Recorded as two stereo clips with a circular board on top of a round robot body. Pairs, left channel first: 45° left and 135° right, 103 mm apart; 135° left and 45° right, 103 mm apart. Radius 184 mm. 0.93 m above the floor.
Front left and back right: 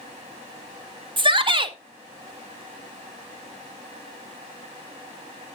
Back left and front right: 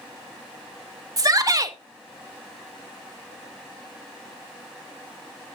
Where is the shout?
100° right, 1.4 m.